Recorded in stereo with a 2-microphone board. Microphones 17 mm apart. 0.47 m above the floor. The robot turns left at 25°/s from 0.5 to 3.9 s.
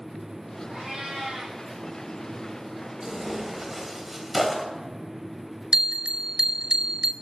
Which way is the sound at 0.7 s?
75° right (ahead or behind).